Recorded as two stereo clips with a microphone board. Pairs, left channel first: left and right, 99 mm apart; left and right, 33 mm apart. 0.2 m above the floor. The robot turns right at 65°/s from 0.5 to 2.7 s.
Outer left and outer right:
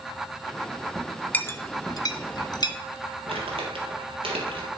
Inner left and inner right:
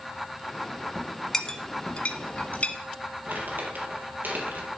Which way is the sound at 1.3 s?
20° left (ahead or behind).